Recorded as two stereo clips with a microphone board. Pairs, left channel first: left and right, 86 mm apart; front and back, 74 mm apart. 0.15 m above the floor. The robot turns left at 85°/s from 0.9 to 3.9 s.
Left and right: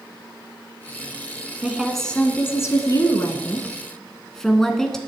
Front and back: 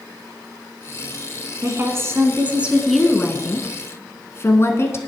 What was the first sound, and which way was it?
A woman speaking, 155° right.